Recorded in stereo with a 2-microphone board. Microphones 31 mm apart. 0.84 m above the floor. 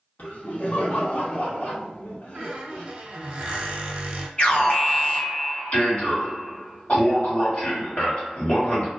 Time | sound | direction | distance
0.2 | laughter | 55° left (ahead or behind) | 1.2 m
2.4 | a squeak | 40° right (ahead or behind) | 0.8 m
4.4 | an alarm | 50° left (ahead or behind) | 1.7 m